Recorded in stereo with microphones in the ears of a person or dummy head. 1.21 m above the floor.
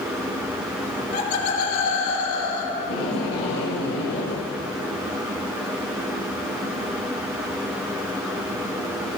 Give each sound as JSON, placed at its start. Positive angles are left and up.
{"t": 0.9, "sound": "laughter", "side_deg": 45, "distance_m": 2.0}
{"t": 2.8, "sound": "tape being pulled", "side_deg": 60, "distance_m": 2.5}